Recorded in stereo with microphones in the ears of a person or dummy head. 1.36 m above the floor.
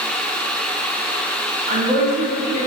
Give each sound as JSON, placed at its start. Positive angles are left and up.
{"t": 1.7, "sound": "a woman speaking", "side_deg": -40, "distance_m": 2.5}